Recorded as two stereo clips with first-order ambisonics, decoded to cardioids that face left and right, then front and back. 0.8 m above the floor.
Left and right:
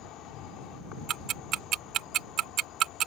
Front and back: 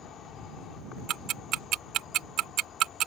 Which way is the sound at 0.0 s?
50° left.